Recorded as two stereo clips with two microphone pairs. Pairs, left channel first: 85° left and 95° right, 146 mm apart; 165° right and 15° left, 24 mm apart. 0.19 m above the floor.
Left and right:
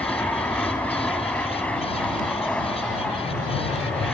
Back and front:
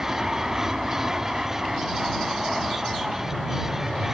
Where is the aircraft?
20° left; by 4.1 s 15° left.